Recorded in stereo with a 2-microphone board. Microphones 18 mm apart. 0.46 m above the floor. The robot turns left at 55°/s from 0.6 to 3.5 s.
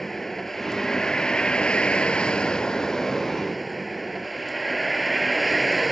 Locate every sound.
0.0 s a vehicle: 160° left; by 5.9 s straight ahead